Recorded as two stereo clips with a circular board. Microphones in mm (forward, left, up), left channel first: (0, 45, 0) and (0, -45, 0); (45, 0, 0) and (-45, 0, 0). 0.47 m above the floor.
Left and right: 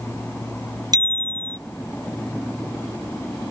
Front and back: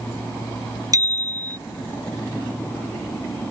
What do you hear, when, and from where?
0.9 s a bicycle bell: 135° right